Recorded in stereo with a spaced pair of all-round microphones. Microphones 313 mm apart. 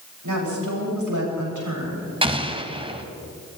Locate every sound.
0.2 s a woman speaking: 85° right, 9.5 m; by 2.1 s 75° right (ahead or behind), 10 m
2.2 s an explosion: 15° right (ahead or behind), 1.6 m